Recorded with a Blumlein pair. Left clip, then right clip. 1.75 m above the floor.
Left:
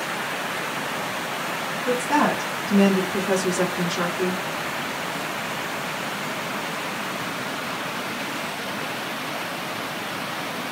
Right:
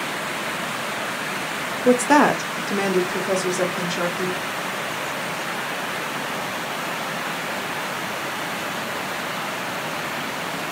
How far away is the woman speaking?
About 0.7 m.